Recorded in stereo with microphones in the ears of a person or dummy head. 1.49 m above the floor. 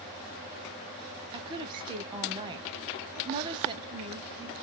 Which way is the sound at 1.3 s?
25° right (ahead or behind).